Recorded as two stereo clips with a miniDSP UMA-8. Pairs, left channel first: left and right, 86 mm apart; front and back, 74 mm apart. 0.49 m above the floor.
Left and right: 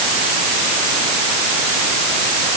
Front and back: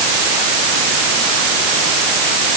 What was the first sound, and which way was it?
Only background noise.